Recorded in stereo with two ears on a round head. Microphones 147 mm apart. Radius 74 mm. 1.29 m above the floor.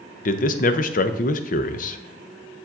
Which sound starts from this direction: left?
A man speaking, at 0.2 s.